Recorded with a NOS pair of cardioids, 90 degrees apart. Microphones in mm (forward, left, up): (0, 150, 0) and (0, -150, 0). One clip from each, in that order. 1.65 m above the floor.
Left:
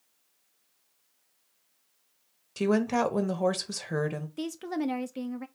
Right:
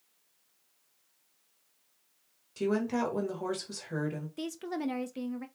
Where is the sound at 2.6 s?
35° left, 0.9 m.